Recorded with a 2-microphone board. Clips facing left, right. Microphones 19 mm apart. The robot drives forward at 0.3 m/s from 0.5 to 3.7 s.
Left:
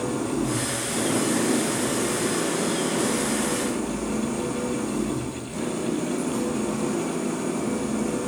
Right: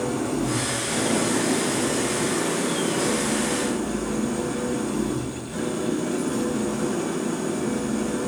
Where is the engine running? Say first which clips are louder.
Right 1 dB; 55° right (ahead or behind), 4 m; by 8.3 s 45° right (ahead or behind), 4.5 m.